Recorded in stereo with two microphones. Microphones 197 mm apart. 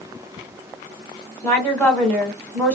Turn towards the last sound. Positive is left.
turn(degrees=10)  # may be behind; listen again after turning